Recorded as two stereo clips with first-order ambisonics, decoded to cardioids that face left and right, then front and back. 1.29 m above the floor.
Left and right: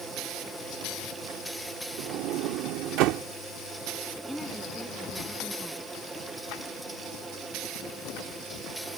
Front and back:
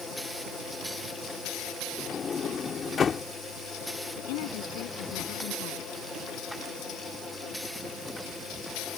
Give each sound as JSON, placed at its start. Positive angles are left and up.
{"t": 2.0, "sound": "a sliding door", "azimuth_deg": -65}
{"t": 4.2, "sound": "a woman speaking", "azimuth_deg": 0}